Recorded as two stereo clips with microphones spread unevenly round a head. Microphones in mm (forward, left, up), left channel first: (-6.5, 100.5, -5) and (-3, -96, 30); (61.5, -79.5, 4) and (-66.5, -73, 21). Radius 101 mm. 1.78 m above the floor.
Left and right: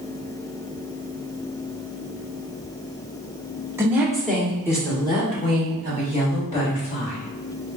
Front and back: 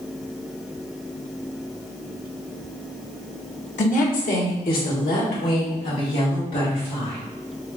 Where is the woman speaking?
20° right, 1.2 m; by 7.2 s 35° left, 3 m.